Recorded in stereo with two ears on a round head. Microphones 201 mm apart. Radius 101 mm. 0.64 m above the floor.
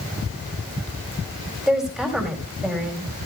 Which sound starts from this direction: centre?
A woman speaking, at 1.7 s.